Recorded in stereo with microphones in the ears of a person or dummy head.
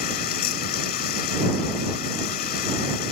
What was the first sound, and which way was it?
Running water, 60° left (ahead or behind).